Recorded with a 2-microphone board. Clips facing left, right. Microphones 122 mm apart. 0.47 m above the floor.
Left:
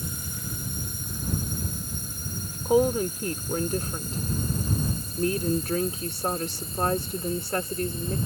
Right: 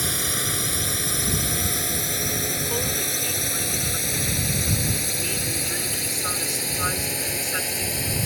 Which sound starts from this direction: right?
A drone, at 0.0 s.